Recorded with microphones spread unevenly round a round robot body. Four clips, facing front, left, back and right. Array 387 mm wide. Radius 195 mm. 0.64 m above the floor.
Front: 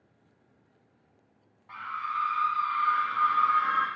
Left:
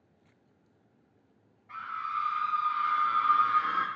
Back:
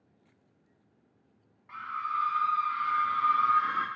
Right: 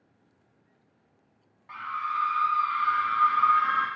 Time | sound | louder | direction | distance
1.7 | a scream | right 4 dB, even | 110° right | 1.8 m